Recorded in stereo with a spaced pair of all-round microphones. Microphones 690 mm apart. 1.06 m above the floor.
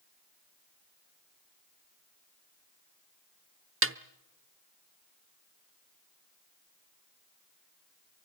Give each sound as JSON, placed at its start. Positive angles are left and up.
{"t": 3.8, "sound": "a snare drum", "side_deg": -20, "distance_m": 0.8}